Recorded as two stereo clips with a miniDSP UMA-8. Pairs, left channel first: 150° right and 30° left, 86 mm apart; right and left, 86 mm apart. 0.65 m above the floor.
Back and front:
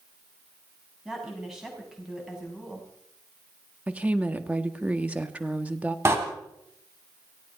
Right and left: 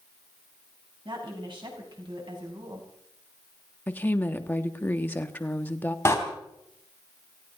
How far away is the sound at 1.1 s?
About 6 m.